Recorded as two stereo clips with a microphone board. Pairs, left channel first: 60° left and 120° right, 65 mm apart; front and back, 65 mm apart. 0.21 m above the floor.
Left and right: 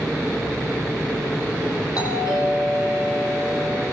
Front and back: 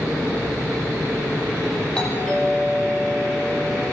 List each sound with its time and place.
1.9 s a doorbell: 80° left, 9 m